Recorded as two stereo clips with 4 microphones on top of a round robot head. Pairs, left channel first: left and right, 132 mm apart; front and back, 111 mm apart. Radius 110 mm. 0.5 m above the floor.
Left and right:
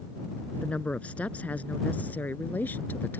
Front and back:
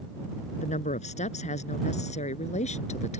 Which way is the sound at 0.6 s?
5° left.